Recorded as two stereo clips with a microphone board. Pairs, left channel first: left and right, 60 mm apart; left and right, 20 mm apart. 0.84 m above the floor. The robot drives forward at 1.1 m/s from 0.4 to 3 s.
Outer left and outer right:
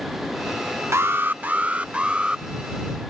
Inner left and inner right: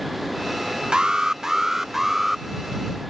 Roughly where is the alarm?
Right.